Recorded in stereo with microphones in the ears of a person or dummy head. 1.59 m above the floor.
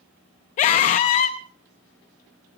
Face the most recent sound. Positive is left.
turn(degrees=40)  # may be behind; listen again after turning